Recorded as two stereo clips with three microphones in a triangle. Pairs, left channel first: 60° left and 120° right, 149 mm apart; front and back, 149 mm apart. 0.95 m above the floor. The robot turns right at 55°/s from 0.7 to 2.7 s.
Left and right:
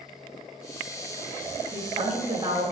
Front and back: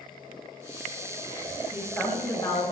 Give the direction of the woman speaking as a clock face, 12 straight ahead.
3 o'clock.